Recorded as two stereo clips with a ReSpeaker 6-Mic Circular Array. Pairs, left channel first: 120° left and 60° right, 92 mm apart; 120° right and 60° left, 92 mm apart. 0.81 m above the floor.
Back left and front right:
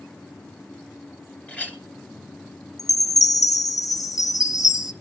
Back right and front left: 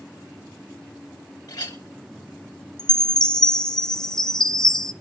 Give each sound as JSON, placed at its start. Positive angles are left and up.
{"t": 1.5, "sound": "a clink", "azimuth_deg": -170, "distance_m": 2.5}
{"t": 2.8, "sound": "a chime", "azimuth_deg": 160, "distance_m": 0.6}